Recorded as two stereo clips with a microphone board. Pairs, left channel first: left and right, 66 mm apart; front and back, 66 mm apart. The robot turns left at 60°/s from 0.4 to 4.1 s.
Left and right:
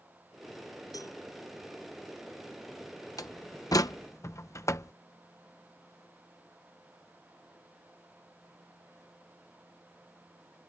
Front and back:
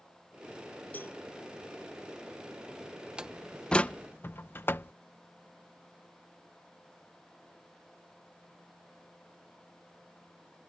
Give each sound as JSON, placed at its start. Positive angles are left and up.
{"t": 0.9, "sound": "a cowbell", "azimuth_deg": 65}
{"t": 3.2, "sound": "a door slam", "azimuth_deg": 105}